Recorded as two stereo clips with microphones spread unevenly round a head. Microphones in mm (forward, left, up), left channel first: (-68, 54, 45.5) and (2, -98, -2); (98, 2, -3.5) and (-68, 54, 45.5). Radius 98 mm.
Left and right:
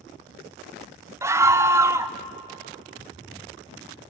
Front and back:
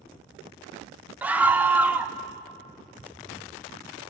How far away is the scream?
About 0.8 m.